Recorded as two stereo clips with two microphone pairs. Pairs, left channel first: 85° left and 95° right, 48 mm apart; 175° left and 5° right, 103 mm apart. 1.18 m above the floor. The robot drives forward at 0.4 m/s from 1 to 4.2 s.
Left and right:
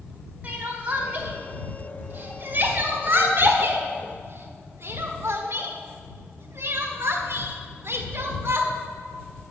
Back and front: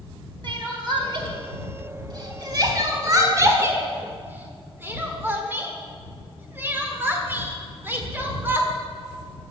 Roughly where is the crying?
Ahead right.